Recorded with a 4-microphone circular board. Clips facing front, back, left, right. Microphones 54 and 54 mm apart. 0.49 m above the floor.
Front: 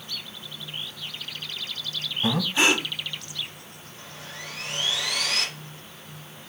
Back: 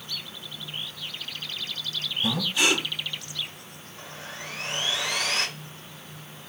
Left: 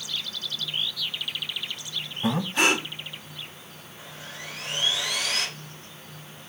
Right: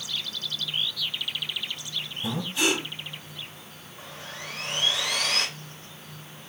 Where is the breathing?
55° left, 0.8 m.